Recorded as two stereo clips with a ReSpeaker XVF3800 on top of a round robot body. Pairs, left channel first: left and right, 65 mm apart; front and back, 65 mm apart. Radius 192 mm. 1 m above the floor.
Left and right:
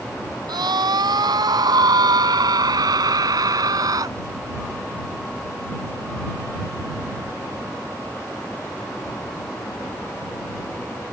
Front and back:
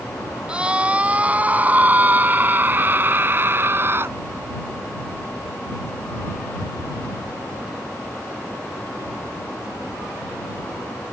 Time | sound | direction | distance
0.5 | a scream | 105° right | ?